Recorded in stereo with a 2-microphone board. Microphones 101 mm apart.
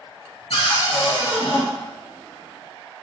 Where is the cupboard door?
70° left (ahead or behind), 1.4 m.